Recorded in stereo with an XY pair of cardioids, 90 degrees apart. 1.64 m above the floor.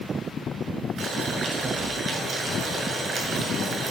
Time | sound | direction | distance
1.0 | boiling | 65° right | 6.5 m